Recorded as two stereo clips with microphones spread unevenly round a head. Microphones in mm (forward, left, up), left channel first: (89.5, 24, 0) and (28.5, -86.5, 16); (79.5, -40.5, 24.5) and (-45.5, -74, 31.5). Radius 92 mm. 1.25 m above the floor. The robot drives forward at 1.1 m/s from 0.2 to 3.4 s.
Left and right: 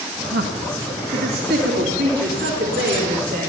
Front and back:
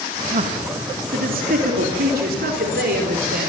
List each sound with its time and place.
0.3 s a man speaking: 140° right, 2.0 m; by 3.5 s 165° right, 5 m